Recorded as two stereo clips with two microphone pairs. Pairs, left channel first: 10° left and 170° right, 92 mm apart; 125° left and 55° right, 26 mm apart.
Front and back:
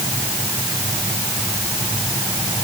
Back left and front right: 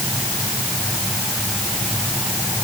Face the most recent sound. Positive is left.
No sound to turn to.